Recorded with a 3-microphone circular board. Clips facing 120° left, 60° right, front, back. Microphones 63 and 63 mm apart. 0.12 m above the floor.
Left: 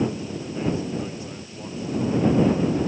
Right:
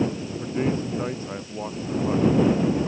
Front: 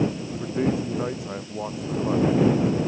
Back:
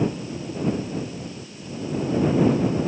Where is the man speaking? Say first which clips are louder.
Right 2 dB, front 2 dB; 10° right.